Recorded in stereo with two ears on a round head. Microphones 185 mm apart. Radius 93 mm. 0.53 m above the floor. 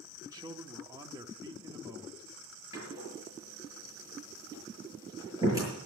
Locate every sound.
0.2 s a man speaking: 20° right (ahead or behind), 0.8 m
2.7 s a door slam: 15° right (ahead or behind), 7.5 m